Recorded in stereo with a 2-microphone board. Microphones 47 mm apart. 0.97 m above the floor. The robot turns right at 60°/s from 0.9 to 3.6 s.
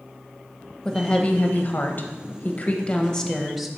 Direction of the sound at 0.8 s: 20° left.